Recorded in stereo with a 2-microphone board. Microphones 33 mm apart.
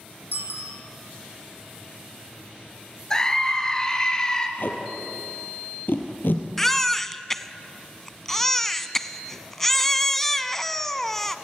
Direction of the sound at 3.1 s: 20° left (ahead or behind).